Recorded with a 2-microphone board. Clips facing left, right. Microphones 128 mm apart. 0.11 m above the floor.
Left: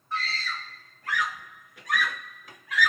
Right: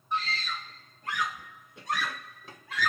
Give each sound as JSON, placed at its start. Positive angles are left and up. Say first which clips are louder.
{"t": 0.1, "sound": "a scream", "louder": "right 1 dB", "side_deg": -15, "distance_m": 2.0}